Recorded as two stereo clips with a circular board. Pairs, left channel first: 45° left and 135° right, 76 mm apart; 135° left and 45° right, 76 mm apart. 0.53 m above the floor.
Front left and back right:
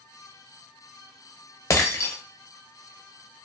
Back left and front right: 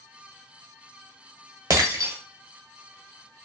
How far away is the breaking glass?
About 0.6 m.